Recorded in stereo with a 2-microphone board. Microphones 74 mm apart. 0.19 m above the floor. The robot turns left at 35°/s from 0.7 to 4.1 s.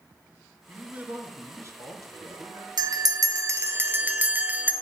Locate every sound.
0.7 s a man speaking: 20° right, 2 m; by 2.7 s 90° right, 2 m
2.8 s a bell: 110° right, 1.0 m; by 4.7 s 155° right, 1.0 m